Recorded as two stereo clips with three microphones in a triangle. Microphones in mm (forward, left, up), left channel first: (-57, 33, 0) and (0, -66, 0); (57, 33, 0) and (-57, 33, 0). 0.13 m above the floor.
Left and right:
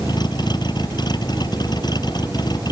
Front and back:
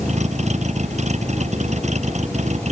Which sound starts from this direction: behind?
A vehicle, at 0.0 s.